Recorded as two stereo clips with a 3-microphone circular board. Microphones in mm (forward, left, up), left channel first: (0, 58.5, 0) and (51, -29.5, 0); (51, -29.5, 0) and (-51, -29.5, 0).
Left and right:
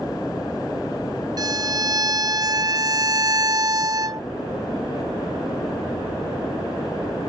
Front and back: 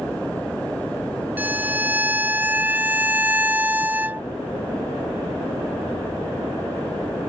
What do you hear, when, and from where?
1.4 s a violin: 110° right